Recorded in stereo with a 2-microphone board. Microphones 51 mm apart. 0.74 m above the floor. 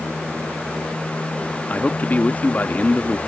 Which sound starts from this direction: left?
A man speaking, at 1.7 s.